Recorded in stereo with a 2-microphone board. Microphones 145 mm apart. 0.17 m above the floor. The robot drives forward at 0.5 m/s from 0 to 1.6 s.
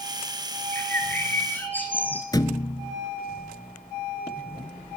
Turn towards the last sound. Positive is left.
turn(degrees=25)  # may be behind; listen again after turning